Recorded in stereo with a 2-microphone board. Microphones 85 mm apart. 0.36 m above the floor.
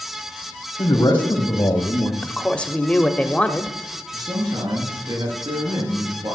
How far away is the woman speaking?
About 1.0 m.